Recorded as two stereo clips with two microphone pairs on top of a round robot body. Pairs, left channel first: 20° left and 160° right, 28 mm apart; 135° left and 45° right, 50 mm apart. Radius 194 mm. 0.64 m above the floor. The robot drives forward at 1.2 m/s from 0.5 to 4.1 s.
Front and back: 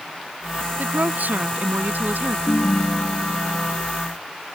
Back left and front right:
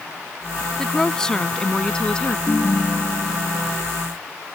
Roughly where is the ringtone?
Ahead left.